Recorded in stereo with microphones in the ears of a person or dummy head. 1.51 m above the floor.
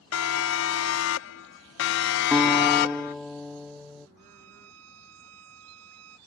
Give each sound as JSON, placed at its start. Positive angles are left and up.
{"t": 0.1, "sound": "a siren", "side_deg": 85}
{"t": 2.3, "sound": "a guitar", "side_deg": 5}
{"t": 4.2, "sound": "a violin", "side_deg": -85}